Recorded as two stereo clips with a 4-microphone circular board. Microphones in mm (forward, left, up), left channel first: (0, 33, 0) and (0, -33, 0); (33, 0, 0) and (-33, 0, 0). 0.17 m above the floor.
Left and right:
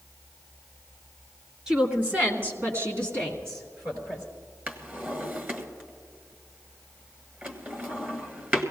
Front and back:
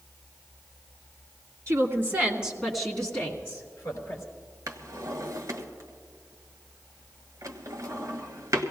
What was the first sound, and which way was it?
A woman speaking, 160° right.